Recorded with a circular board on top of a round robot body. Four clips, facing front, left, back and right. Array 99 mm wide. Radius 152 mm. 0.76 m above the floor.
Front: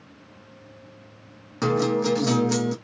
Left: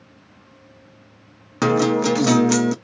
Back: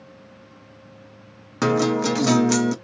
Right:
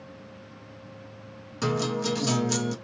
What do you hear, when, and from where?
1.6 s a guitar: 115° left, 0.6 m